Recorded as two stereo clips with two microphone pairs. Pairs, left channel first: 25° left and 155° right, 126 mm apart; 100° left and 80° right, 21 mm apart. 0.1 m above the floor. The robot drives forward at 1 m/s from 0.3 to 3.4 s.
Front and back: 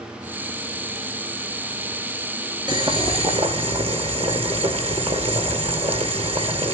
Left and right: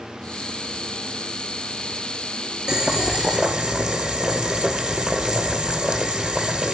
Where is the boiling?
130° right, 1.6 m; by 6.8 s 150° right, 2 m.